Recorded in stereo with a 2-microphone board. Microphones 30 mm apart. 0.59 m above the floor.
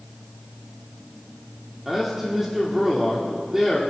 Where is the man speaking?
15° right (ahead or behind), 1.5 m.